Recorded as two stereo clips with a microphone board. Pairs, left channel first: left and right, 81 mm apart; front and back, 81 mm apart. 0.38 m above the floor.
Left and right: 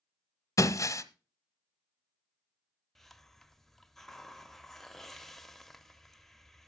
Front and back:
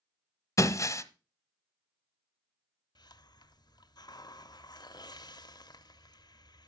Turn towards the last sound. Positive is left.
turn(degrees=5)